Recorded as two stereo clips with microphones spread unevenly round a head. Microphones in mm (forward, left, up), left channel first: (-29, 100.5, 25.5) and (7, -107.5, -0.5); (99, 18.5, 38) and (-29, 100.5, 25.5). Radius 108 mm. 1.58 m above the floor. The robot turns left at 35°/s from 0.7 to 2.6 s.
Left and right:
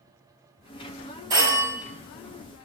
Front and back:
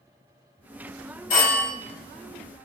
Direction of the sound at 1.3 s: 5° right.